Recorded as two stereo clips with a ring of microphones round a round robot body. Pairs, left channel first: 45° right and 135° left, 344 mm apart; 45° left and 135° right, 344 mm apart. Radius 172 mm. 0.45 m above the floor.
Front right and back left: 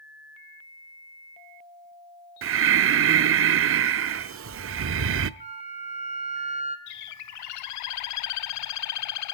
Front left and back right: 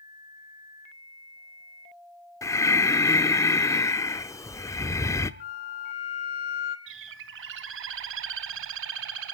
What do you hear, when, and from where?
2.4 s breathing: 120° left, 0.6 m
5.4 s a flute: 65° left, 1.4 m
6.9 s a bird: 85° right, 0.6 m